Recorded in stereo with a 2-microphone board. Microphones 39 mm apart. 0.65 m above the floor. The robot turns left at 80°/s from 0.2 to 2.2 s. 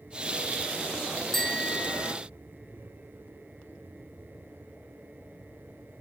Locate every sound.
1.3 s a bicycle bell: 175° left; by 2.1 s 110° left